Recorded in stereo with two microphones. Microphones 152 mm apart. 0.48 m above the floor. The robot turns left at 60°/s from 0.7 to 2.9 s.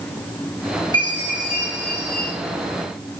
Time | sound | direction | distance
0.9 | a chime | 35° left | 1.8 m